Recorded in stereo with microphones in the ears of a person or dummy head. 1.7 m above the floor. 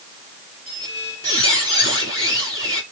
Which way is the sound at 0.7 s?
40° left (ahead or behind).